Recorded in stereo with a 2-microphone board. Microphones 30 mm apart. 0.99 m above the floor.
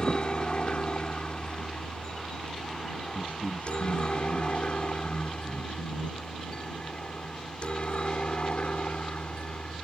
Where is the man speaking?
90° left.